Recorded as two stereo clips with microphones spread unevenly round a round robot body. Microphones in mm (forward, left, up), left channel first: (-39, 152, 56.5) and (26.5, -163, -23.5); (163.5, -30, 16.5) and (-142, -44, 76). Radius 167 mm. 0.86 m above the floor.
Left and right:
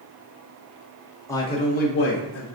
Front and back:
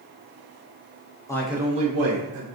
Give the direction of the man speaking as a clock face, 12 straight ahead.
12 o'clock.